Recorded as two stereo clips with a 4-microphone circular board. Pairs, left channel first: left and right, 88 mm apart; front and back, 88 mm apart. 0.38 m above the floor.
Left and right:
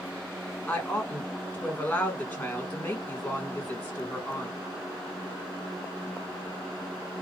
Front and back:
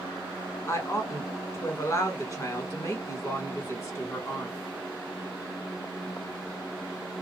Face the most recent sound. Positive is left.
turn(degrees=20)